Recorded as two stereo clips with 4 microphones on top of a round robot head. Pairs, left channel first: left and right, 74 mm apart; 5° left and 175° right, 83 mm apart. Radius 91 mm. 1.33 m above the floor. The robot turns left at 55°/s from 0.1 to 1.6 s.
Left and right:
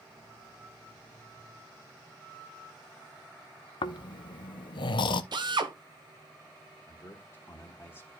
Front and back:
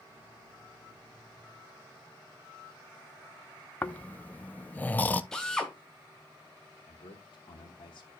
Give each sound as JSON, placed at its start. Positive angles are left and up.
{"t": 3.8, "sound": "snoring", "azimuth_deg": 75, "distance_m": 0.5}
{"t": 5.3, "sound": "a drill", "azimuth_deg": -80, "distance_m": 1.5}
{"t": 6.9, "sound": "a man speaking", "azimuth_deg": 35, "distance_m": 1.4}